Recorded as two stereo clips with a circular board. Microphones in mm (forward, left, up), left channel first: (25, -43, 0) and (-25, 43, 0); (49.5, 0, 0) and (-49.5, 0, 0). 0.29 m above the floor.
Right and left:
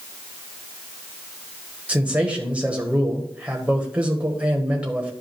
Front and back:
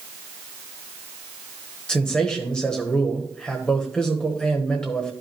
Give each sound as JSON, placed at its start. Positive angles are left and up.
{"t": 1.9, "sound": "a man speaking", "azimuth_deg": 65, "distance_m": 1.0}